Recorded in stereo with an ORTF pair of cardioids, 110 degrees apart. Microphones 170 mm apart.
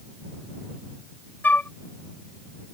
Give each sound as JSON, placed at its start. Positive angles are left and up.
{"t": 1.4, "sound": "a flute", "azimuth_deg": 10}